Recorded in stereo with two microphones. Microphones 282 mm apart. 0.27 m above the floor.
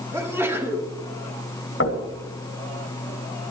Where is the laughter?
No laughter in this recording.